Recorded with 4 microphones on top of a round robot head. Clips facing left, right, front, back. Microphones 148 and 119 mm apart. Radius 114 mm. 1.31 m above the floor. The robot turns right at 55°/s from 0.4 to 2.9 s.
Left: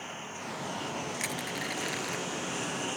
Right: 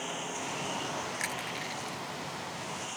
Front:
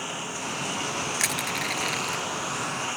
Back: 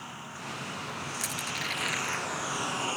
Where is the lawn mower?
25° right; by 3.0 s 115° left.